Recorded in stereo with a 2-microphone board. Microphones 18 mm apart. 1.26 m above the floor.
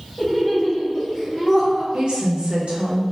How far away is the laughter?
About 1.7 m.